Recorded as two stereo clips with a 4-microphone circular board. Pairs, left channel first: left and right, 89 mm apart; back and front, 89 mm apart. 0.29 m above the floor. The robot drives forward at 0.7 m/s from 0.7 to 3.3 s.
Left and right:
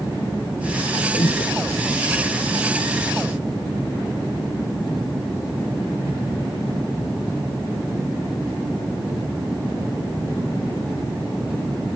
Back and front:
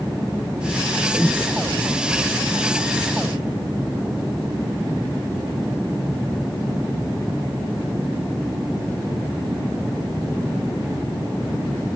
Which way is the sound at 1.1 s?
105° left.